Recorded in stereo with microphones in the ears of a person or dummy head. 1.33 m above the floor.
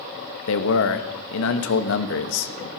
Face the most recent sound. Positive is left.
turn(degrees=75)  # may be behind; listen again after turning